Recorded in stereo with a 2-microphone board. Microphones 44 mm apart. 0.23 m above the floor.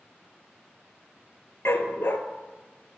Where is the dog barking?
70° left (ahead or behind), 1.0 m.